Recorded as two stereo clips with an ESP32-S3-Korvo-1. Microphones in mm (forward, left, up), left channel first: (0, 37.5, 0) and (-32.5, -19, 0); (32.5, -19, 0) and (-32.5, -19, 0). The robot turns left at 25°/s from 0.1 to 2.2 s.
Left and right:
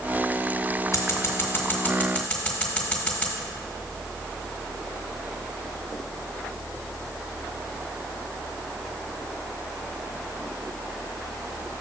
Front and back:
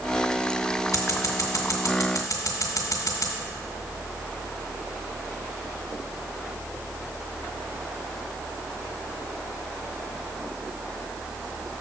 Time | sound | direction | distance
0.9 | scissors | 25° left | 1.8 m